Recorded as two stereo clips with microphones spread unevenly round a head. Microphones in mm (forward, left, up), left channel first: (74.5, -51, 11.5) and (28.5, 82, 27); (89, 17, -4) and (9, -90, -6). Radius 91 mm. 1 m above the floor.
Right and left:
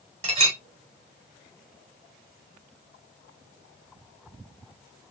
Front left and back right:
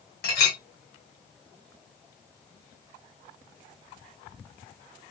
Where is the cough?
No cough in this recording.